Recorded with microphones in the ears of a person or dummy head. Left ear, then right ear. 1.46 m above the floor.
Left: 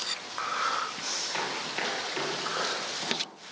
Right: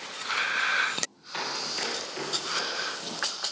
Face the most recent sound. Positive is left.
turn(degrees=45)  # may be behind; listen again after turning